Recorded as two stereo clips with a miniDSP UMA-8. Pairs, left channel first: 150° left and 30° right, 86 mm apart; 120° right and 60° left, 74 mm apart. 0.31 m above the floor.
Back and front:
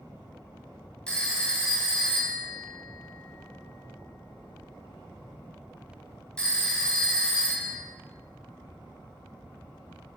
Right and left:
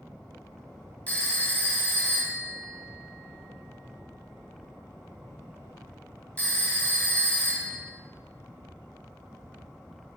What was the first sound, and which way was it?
A phone ringing, 145° right.